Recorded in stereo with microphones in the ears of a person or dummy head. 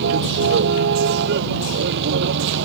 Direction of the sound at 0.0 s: 65° right (ahead or behind).